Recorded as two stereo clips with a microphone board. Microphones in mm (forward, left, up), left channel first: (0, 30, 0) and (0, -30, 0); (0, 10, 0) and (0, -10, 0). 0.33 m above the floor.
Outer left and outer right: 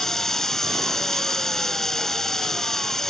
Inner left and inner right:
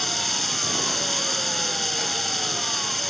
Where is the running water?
5° left (ahead or behind).